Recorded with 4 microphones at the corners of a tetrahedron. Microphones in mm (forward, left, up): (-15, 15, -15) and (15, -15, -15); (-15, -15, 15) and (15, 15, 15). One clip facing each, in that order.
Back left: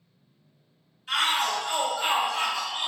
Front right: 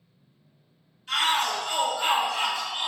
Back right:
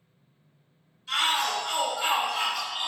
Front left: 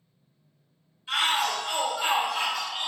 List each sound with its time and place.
1.1 s a shout: 65° left, 1.5 m; by 2.9 s 70° right, 1.5 m